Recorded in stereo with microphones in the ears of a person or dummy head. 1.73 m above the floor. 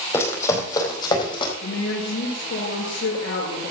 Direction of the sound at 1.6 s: 70° left (ahead or behind).